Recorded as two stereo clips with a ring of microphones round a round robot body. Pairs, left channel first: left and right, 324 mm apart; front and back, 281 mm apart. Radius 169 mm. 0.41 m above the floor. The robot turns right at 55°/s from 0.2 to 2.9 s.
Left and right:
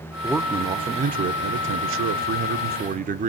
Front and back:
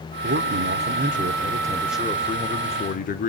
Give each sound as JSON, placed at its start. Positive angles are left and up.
{"t": 0.2, "sound": "a man speaking", "azimuth_deg": 175, "distance_m": 1.0}